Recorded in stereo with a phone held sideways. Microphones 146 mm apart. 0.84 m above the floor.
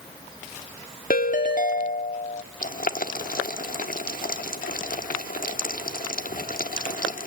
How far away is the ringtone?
About 1.4 m.